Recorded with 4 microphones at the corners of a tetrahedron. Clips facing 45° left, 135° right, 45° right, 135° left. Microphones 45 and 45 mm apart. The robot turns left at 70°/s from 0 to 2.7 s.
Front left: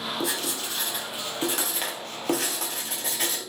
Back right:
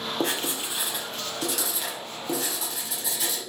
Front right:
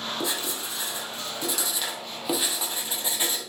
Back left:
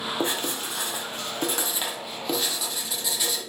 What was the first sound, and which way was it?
Writing, 175° right.